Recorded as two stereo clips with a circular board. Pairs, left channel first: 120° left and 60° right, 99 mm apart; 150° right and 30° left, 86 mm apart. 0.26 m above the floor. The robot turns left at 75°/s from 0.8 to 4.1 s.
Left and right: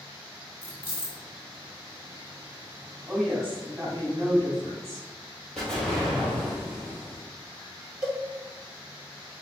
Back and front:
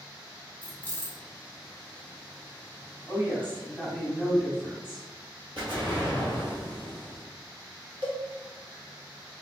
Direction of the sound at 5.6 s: 40° left.